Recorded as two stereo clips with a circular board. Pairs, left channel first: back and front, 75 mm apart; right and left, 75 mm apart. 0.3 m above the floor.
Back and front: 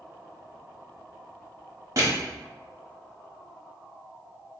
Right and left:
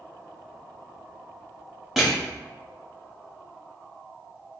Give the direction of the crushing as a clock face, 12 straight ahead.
12 o'clock.